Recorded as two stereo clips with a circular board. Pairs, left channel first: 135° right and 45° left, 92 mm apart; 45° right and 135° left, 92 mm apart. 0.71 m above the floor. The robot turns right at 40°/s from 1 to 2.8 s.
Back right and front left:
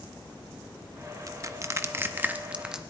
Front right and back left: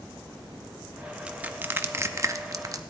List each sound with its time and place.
1.3 s crushing: 65° left, 0.7 m; by 2.8 s 125° left, 0.7 m